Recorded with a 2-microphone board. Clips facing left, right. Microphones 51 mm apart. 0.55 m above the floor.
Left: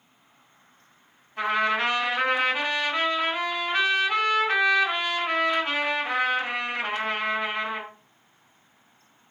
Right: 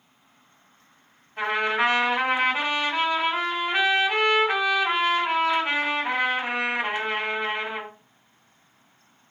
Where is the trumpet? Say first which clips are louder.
Even; 10° right (ahead or behind), 2.5 m.